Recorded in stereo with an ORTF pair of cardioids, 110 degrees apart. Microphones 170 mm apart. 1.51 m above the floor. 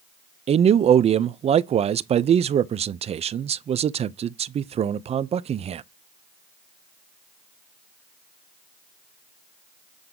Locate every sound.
0.5 s a man speaking: 40° right, 0.5 m